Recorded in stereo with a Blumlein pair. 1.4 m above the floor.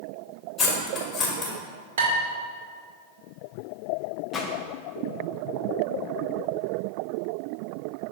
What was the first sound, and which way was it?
Cutlery clinking, 20° left.